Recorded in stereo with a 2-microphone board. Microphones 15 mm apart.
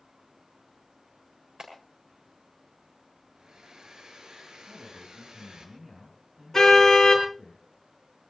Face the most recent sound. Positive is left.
turn(degrees=25)  # may be behind; listen again after turning